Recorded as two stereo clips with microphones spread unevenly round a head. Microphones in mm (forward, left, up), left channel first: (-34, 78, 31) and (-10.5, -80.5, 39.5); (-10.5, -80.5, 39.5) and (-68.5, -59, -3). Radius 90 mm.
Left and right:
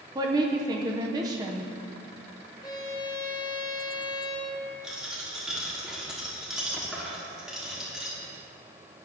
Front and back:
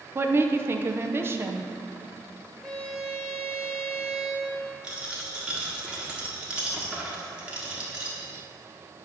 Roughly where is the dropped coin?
Ahead.